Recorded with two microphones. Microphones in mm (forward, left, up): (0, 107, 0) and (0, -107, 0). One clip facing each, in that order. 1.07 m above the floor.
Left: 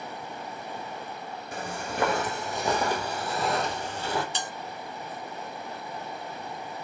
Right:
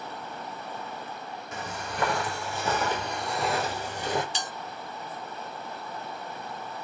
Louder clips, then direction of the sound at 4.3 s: Left 1 dB; 55° left (ahead or behind).